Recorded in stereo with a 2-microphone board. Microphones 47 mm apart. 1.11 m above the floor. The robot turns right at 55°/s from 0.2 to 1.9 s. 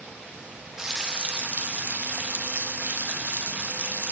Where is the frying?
160° right, 0.6 m; by 4.1 s 95° right, 0.6 m.